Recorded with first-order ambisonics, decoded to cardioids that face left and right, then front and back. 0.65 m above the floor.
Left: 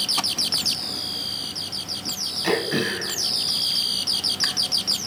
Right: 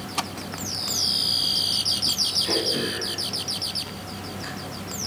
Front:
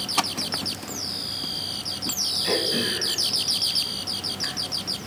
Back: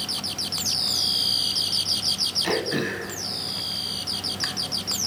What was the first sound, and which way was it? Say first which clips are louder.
Throat clearing: left 1 dB, front 2 dB; 115° left.